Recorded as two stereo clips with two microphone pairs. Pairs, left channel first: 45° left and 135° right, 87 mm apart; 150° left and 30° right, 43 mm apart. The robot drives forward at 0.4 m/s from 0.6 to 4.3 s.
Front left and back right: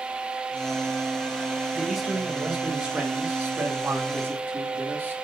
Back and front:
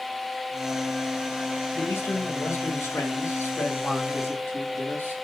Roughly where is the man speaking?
Behind left.